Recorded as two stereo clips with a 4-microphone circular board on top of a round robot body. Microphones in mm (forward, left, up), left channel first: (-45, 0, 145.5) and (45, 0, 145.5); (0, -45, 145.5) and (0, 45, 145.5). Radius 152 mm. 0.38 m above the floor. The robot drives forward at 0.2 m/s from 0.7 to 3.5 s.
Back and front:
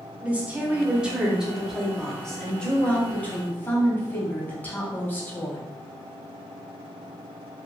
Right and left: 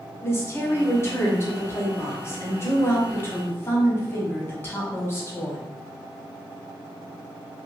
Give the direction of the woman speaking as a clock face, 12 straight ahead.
2 o'clock.